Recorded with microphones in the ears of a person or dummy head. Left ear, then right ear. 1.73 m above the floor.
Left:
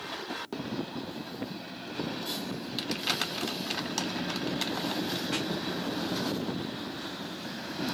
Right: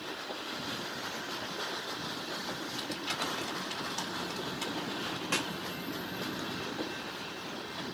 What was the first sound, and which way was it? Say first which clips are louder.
Crumpling: left 7 dB; 45° left (ahead or behind).